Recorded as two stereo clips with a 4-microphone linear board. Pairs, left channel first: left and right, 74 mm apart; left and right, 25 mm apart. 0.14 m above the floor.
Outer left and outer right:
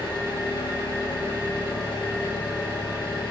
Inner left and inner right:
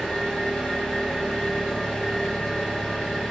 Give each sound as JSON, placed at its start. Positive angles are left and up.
{"t": 0.0, "sound": "an engine running", "side_deg": 75, "distance_m": 1.2}